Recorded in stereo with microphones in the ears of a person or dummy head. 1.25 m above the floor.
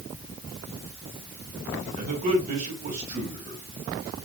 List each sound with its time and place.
2.0 s a man speaking: 40° right (ahead or behind), 1.7 m